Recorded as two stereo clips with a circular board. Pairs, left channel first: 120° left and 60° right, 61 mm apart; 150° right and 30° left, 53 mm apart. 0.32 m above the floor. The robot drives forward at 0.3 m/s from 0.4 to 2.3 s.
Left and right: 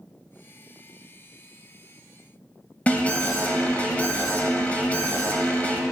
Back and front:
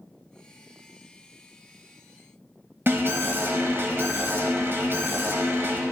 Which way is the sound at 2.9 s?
60° left.